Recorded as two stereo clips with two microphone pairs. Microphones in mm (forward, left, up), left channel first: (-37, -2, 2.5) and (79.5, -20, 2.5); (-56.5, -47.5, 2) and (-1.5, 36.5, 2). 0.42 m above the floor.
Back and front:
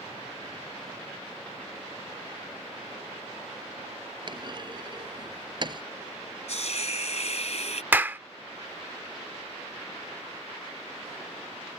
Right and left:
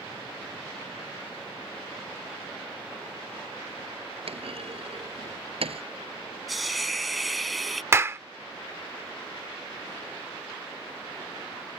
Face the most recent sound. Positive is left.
turn(degrees=35)